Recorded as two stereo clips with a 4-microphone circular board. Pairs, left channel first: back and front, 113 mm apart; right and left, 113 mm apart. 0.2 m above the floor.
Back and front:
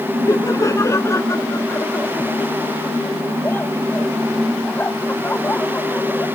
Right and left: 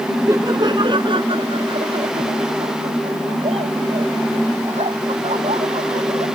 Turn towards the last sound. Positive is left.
turn(degrees=105)